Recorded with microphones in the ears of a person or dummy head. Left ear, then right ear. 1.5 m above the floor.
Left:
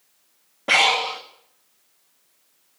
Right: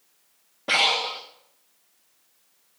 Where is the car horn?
I don't hear a car horn.